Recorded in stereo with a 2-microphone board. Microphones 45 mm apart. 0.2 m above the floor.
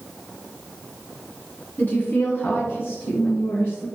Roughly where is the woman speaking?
Left.